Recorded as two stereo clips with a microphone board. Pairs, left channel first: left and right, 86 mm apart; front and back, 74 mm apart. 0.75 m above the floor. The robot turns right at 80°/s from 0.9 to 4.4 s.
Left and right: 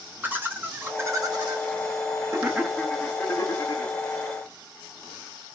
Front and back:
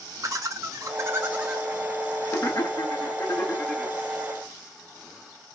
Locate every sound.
0.2 s laughter: 150° right, 0.6 m; by 3.9 s 95° left, 0.6 m